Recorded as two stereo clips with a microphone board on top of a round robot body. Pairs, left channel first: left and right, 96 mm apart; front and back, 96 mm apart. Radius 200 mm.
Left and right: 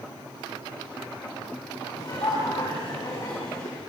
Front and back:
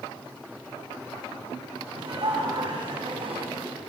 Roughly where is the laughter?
Behind left.